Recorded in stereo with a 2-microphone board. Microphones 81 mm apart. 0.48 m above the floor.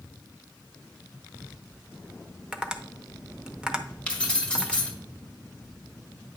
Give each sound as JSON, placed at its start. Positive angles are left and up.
{"t": 2.5, "sound": "tapping", "side_deg": -10, "distance_m": 0.7}
{"t": 4.1, "sound": "keys jangling", "side_deg": 15, "distance_m": 1.6}